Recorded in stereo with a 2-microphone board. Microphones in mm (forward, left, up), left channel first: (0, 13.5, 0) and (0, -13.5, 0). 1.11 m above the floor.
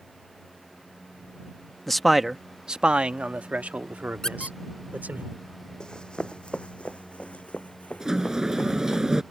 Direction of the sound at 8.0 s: 20° right (ahead or behind).